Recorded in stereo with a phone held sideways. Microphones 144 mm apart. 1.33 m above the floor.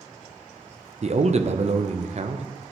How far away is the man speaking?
About 0.5 m.